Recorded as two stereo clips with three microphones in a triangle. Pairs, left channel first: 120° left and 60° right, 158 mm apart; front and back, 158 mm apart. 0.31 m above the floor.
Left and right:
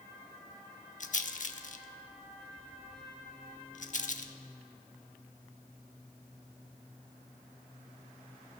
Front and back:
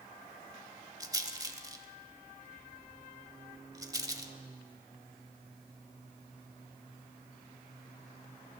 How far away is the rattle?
About 0.6 m.